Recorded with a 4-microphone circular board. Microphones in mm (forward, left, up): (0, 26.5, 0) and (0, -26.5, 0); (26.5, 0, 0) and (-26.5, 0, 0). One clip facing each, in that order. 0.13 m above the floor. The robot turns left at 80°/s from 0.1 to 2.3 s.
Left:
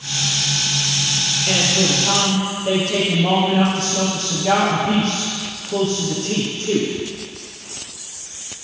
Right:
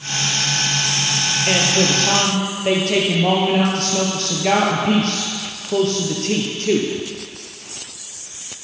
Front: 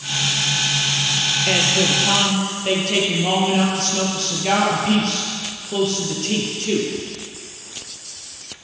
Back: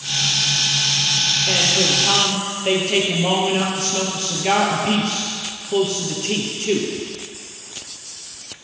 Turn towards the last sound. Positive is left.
turn(degrees=-105)